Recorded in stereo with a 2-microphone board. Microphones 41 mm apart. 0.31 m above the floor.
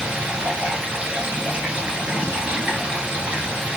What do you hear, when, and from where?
0.0 s running water: 25° right (ahead or behind), 1.5 m